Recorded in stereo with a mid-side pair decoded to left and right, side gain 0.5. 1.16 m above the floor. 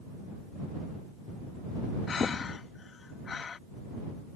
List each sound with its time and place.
2.1 s breathing: 40° left